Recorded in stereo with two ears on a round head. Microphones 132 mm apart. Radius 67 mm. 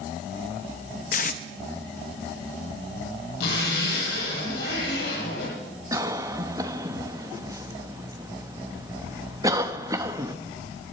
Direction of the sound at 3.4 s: 80° left.